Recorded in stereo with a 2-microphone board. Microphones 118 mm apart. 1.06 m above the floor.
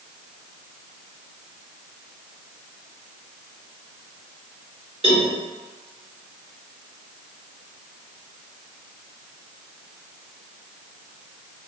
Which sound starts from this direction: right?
A cowbell, at 5.0 s.